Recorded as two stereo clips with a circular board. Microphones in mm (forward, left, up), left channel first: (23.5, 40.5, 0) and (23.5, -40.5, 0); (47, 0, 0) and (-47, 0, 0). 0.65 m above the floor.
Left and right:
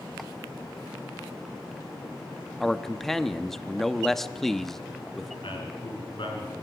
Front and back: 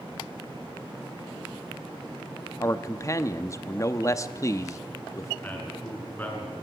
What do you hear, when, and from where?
2.6 s a man speaking: 5° left, 0.9 m
5.4 s a man speaking: 75° left, 6.5 m